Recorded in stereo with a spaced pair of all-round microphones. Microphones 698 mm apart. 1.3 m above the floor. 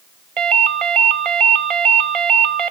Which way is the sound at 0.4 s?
50° right (ahead or behind).